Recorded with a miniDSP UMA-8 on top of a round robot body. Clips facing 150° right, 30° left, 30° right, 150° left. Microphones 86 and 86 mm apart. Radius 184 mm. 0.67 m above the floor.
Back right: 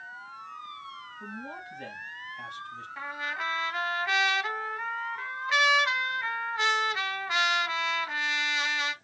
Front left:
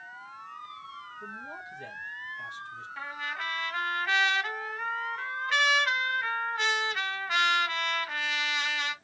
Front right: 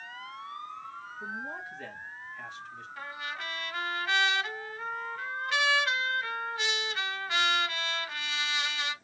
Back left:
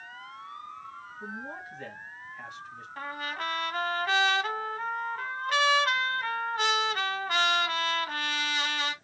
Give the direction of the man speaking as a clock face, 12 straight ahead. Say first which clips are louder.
Back right 3 dB, front right 1 dB; 4 o'clock.